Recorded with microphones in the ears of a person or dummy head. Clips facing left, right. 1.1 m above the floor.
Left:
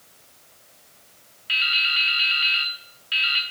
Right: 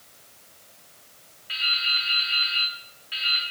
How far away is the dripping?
About 0.9 m.